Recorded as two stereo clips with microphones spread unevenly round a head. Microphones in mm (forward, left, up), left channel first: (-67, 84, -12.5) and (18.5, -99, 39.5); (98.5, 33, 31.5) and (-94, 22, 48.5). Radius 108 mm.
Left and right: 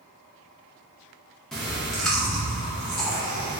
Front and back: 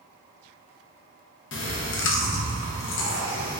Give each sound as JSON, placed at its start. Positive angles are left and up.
{"t": 1.5, "sound": "chewing", "azimuth_deg": 25, "distance_m": 0.6}